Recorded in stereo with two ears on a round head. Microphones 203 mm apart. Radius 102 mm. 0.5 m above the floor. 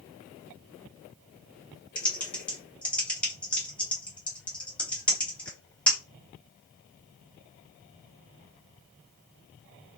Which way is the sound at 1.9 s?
5° left (ahead or behind).